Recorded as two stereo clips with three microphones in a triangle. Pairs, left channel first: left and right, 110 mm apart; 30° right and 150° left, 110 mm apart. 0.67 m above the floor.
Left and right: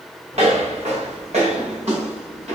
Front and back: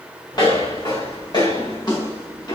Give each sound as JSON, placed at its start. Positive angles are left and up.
{"t": 0.3, "sound": "footsteps", "azimuth_deg": -80, "distance_m": 4.5}